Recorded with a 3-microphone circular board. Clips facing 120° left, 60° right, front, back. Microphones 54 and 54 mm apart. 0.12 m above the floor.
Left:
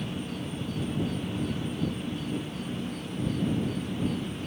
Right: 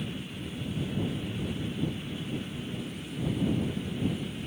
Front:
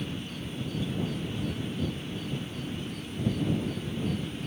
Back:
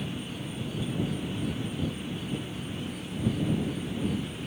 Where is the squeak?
No squeak in this recording.